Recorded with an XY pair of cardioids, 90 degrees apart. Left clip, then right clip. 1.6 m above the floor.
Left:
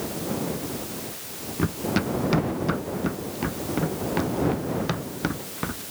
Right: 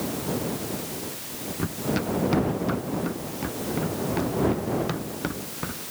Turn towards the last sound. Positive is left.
turn(degrees=25)